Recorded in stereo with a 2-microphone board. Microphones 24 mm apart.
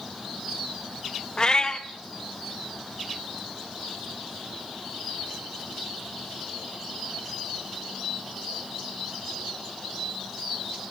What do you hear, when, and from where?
1.4 s a cat meowing: 35° left (ahead or behind), 1.1 m